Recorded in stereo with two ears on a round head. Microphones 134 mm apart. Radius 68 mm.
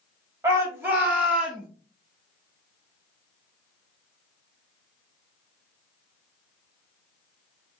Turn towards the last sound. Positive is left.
turn(degrees=-5)  # may be behind; listen again after turning